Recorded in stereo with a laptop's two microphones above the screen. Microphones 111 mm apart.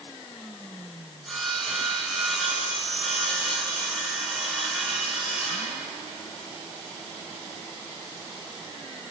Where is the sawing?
Centre (ahead or behind), 5.5 m.